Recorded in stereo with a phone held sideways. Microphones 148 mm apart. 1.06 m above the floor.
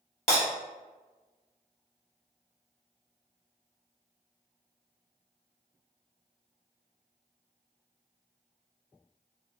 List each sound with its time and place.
0.3 s breaking glass: 50° left (ahead or behind), 1.0 m